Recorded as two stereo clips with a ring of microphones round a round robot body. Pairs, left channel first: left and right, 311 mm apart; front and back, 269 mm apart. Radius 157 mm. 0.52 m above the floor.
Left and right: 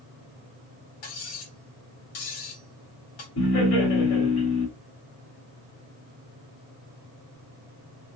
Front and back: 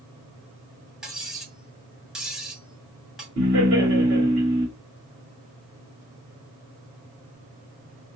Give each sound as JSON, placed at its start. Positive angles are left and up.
{"t": 1.0, "sound": "cutlery clinking", "azimuth_deg": 95, "distance_m": 2.0}
{"t": 3.4, "sound": "laughter", "azimuth_deg": 135, "distance_m": 1.8}